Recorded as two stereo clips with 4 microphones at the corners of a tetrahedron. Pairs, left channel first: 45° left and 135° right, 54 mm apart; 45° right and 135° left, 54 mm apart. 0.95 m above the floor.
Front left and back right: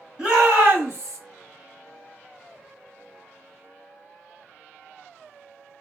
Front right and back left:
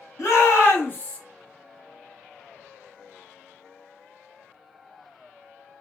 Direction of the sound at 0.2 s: 65° right.